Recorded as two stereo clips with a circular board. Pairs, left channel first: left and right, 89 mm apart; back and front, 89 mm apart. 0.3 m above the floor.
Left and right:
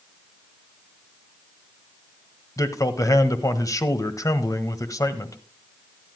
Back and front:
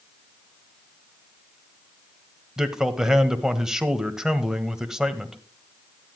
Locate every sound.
2.6 s a man speaking: 80° left, 1.2 m